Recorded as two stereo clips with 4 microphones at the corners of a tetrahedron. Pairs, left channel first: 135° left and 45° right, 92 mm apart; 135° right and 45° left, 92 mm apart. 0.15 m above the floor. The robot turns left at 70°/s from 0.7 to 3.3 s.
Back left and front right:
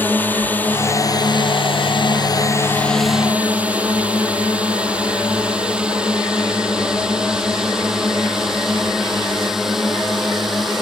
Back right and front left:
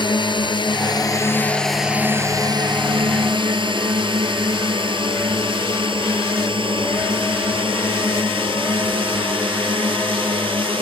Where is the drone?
155° right; by 10.8 s 45° left.